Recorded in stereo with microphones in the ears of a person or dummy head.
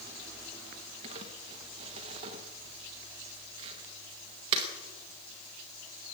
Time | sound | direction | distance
1.0 | crumpling | 25° right (ahead or behind) | 1.0 m